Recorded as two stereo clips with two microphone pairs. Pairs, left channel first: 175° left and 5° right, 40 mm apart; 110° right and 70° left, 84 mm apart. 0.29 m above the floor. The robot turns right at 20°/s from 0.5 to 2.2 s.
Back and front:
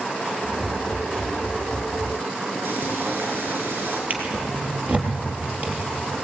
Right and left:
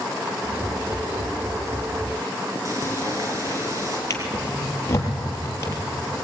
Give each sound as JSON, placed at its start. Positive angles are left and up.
{"t": 2.6, "sound": "frying", "azimuth_deg": 15, "distance_m": 5.0}
{"t": 4.1, "sound": "a drawer", "azimuth_deg": -55, "distance_m": 4.0}